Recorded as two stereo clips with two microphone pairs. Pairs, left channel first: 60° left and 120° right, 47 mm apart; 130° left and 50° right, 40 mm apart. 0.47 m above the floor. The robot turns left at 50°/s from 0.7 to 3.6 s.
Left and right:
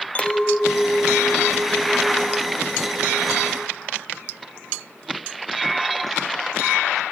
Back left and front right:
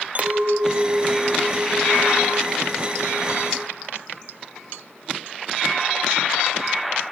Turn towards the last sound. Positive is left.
turn(degrees=-145)